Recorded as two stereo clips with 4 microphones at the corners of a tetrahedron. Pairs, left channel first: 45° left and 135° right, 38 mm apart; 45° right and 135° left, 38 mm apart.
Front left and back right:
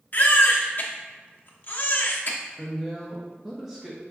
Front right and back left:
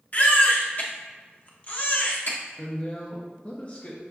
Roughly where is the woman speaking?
Ahead right.